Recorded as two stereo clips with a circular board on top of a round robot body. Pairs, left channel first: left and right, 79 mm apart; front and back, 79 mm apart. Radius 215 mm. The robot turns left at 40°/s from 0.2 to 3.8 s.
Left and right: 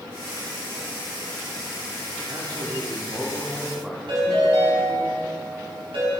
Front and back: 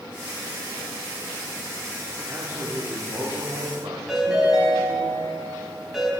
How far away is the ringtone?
About 4.5 m.